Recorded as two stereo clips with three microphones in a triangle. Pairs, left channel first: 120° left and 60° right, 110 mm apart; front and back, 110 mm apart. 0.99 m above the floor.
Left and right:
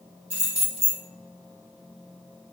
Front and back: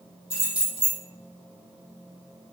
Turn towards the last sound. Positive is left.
turn(degrees=40)